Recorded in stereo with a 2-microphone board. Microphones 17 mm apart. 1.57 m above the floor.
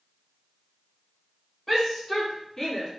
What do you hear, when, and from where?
1.7 s a shout: 5° left (ahead or behind), 4 m; by 2.9 s 15° left (ahead or behind), 3.5 m